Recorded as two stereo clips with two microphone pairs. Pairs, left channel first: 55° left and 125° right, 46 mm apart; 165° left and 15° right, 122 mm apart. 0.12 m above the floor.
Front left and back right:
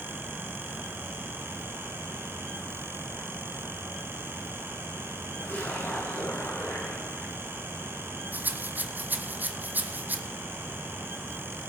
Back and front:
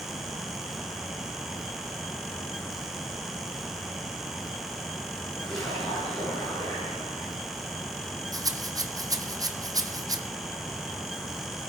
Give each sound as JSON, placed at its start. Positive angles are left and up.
{"t": 5.4, "sound": "a splash", "azimuth_deg": 80, "distance_m": 8.0}
{"t": 8.3, "sound": "a rattle", "azimuth_deg": -75, "distance_m": 1.1}